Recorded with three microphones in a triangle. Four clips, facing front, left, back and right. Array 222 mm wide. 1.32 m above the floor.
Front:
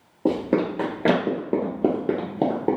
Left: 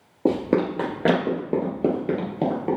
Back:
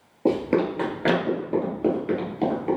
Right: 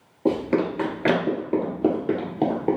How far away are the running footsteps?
About 1.6 m.